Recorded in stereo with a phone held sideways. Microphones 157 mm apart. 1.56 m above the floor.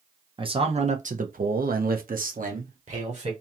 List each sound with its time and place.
0.4 s a man speaking: 35° right (ahead or behind), 0.8 m; by 3.3 s 45° right (ahead or behind), 1.2 m